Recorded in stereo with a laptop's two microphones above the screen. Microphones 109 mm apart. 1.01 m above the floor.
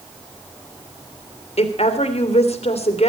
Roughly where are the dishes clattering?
No dishes clattering in this recording.